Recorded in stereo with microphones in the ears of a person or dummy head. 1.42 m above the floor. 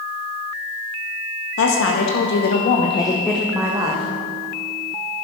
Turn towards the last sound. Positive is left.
turn(degrees=-20)  # may be behind; listen again after turning